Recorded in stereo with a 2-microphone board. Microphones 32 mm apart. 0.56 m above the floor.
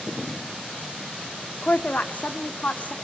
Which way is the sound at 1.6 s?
45° left (ahead or behind).